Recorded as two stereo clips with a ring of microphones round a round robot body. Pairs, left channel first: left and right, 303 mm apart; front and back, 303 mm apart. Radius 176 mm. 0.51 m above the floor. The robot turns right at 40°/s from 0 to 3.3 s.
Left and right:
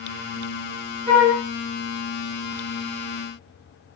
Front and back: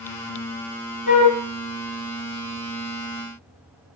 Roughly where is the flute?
Ahead.